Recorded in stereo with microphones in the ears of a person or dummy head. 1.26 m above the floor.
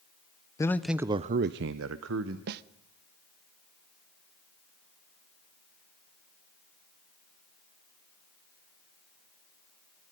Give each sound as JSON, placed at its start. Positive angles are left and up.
{"t": 0.6, "sound": "a man speaking", "side_deg": 15, "distance_m": 0.6}
{"t": 2.5, "sound": "a snare drum", "side_deg": -60, "distance_m": 0.6}